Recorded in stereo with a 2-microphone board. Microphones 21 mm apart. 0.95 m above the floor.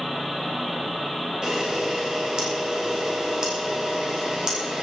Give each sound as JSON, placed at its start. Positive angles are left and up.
{"t": 1.4, "sound": "a camera shutter", "side_deg": -40, "distance_m": 5.5}